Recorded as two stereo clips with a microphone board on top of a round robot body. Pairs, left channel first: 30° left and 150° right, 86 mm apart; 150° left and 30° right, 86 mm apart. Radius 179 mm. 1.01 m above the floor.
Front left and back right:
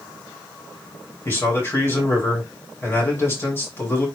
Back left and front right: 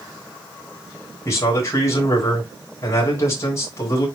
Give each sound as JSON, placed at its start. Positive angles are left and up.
{"t": 1.2, "sound": "a man speaking", "azimuth_deg": 95, "distance_m": 5.5}